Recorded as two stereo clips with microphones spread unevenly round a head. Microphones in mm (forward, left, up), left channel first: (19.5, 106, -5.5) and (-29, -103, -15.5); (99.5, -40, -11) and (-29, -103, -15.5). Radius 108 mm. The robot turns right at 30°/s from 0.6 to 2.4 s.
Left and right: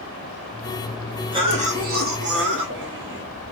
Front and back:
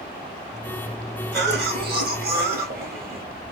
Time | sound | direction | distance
1.3 | a cough | 175° right | 1.6 m